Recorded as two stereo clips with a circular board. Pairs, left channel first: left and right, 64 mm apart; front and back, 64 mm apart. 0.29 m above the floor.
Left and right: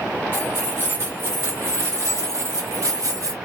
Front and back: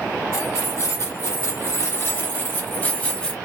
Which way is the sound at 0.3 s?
35° right.